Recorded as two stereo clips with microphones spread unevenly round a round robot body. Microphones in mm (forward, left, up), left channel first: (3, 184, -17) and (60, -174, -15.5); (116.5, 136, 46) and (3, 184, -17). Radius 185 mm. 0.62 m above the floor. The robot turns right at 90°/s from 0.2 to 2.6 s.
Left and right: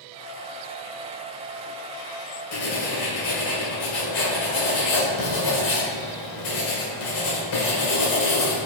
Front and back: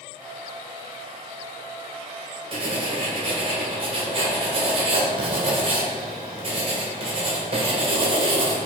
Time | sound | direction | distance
2.5 | writing | 130° left | 1.9 m